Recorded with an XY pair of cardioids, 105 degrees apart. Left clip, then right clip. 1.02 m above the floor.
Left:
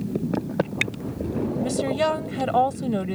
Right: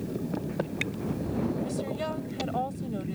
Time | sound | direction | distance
1.6 | a woman speaking | 70° left | ?